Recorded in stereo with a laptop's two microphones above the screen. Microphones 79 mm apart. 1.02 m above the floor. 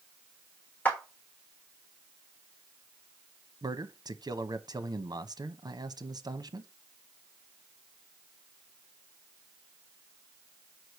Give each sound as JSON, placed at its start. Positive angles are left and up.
{"t": 0.8, "sound": "a clap", "side_deg": 20, "distance_m": 1.4}
{"t": 3.6, "sound": "a man speaking", "side_deg": -55, "distance_m": 0.8}